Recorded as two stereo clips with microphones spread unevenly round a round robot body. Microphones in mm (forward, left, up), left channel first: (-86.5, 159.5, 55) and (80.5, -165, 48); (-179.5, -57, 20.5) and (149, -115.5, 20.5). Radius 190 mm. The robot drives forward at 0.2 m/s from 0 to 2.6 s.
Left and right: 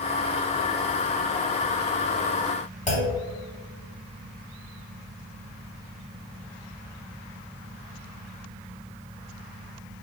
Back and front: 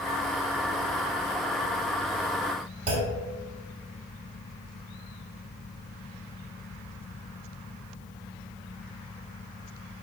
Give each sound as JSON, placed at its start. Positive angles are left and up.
{"t": 2.9, "sound": "a clunk", "azimuth_deg": 55, "distance_m": 0.6}